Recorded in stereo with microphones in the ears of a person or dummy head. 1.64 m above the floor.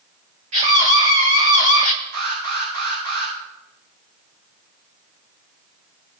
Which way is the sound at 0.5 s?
35° right (ahead or behind).